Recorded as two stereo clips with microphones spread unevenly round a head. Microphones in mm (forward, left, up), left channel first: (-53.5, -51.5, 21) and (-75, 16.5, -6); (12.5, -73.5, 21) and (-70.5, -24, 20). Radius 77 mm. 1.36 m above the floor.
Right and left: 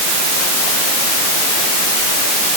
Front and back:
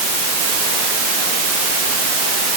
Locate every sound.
Only background noise.